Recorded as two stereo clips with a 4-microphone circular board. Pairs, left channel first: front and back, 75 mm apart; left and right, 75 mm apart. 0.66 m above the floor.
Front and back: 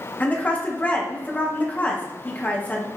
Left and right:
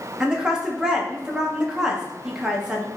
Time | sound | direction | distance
0.2 | a woman speaking | 25° right | 0.6 m